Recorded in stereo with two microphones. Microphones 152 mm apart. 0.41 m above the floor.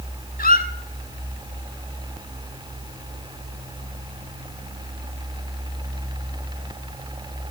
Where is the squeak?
75° left (ahead or behind), 0.9 m.